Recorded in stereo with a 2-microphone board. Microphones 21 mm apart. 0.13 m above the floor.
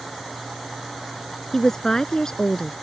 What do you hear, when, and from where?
1.5 s a woman speaking: 30° left (ahead or behind); by 2.7 s 40° left (ahead or behind)